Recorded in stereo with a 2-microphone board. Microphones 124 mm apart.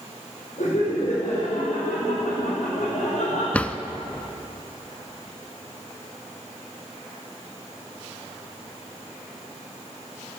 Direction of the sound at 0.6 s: 70° left (ahead or behind).